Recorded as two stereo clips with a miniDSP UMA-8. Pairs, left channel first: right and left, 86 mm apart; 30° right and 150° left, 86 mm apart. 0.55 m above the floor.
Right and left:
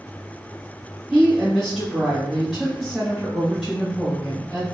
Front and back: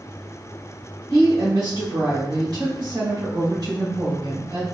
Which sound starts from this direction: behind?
A woman speaking, at 1.1 s.